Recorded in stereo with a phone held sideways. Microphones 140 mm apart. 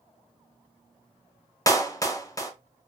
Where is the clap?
25° left (ahead or behind), 0.5 m.